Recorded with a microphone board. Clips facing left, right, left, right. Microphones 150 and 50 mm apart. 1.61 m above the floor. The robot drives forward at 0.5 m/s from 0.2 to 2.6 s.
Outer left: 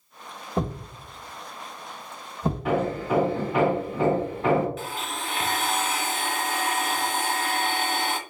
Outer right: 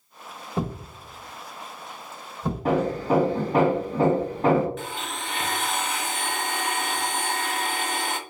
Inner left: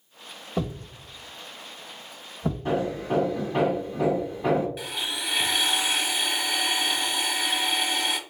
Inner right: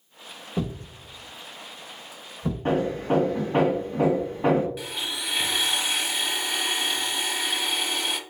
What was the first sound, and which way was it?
A thud, 10° left (ahead or behind).